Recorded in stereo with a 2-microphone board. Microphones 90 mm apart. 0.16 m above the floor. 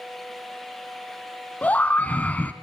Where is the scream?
15° left (ahead or behind), 1.0 m.